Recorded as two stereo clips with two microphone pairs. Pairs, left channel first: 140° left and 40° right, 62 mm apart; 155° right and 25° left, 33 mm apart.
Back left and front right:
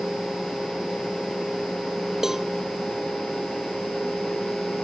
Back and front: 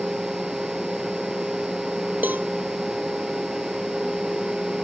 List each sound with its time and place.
2.2 s a cowbell: 45° left